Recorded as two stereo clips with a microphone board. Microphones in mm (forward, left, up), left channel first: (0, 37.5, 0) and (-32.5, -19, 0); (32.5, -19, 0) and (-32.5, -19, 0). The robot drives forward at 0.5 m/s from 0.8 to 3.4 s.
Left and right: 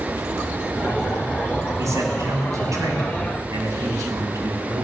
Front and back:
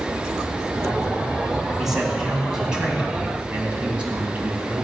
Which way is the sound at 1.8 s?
95° right.